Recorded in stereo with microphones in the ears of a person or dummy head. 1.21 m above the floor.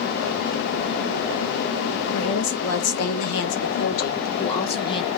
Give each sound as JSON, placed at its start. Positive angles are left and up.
{"t": 2.1, "sound": "a woman speaking", "side_deg": 70, "distance_m": 1.2}